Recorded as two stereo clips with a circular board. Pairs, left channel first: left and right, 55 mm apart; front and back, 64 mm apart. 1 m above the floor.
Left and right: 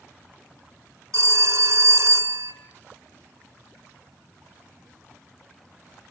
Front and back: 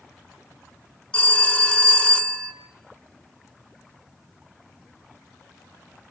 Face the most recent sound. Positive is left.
turn(degrees=-75)